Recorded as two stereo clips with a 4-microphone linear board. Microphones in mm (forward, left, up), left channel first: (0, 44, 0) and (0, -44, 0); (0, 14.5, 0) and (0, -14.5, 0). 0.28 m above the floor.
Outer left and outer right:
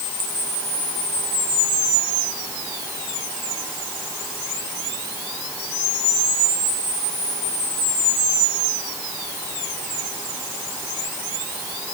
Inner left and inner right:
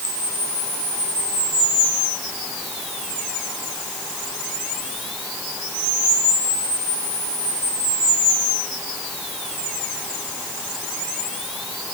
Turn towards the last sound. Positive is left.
No sound to turn to.